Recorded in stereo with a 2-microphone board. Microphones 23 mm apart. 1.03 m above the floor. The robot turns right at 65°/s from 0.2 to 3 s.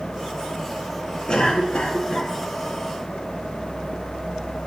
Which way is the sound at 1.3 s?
55° left.